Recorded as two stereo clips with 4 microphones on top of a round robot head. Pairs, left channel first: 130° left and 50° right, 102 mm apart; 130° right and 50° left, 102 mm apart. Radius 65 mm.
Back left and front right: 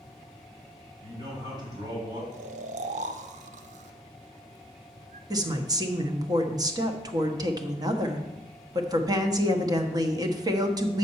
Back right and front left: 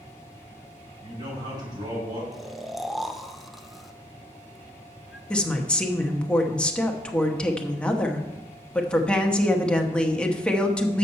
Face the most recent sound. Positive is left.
turn(degrees=-55)